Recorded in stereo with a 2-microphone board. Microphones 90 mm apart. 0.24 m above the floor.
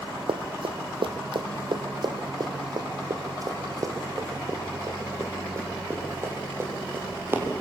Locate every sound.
0.3 s running footsteps: 80° right, 1.7 m; by 7.5 s 25° right (ahead or behind), 6 m